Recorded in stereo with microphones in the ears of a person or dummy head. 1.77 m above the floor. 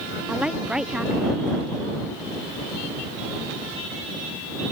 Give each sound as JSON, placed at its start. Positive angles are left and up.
{"t": 0.3, "sound": "a woman speaking", "side_deg": -5}